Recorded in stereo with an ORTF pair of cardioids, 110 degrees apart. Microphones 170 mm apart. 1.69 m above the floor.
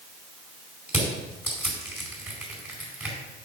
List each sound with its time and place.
0.9 s crushing: 10° right, 4.5 m